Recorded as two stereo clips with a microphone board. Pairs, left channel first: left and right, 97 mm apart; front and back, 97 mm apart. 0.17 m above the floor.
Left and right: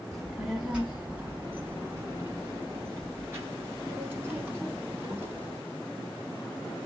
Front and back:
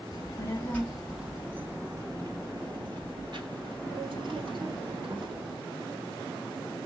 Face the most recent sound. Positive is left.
turn(degrees=-155)